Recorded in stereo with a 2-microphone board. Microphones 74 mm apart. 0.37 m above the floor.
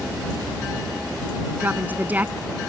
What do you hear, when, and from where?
1.6 s a woman speaking: 20° right (ahead or behind)